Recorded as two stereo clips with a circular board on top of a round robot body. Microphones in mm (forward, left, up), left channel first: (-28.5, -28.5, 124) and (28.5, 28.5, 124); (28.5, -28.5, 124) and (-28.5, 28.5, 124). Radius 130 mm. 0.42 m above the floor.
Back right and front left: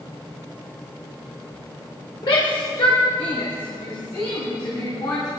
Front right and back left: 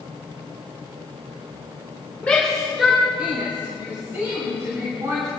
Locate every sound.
2.2 s a shout: 120° right, 2.5 m; by 5.3 s straight behind, 4.5 m